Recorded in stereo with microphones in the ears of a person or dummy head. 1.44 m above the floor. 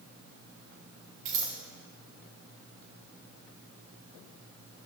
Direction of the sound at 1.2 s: 40° right (ahead or behind).